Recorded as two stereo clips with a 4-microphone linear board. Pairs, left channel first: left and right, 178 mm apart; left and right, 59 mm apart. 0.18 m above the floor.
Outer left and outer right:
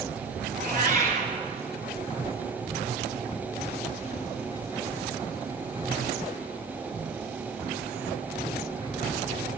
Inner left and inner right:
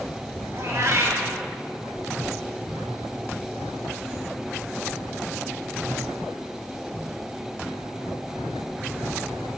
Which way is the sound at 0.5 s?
50° right (ahead or behind).